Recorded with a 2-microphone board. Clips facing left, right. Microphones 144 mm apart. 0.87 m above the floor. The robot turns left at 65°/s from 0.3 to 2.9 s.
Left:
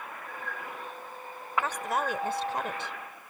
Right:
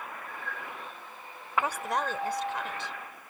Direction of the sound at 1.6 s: 160° right.